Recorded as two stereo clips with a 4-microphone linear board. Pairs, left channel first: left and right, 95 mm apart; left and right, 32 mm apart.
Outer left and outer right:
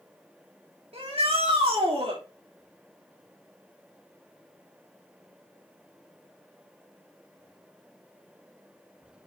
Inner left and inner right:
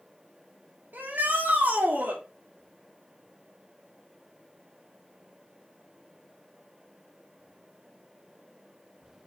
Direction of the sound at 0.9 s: 85° right.